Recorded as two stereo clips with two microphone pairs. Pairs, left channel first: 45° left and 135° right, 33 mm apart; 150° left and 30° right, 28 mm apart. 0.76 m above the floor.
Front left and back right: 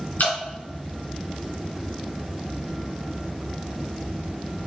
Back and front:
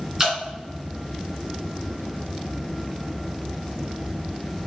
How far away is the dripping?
About 2 m.